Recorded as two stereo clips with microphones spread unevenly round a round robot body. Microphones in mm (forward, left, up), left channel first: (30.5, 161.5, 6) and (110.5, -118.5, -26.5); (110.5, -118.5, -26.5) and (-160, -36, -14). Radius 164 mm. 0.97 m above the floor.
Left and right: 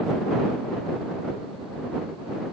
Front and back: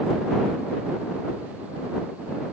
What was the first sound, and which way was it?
Only background noise.